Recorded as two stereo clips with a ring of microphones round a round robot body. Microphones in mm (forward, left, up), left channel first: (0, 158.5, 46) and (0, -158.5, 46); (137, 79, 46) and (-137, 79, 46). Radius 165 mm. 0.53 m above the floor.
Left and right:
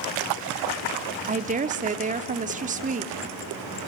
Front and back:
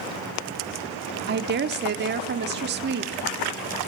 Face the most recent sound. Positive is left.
turn(degrees=-145)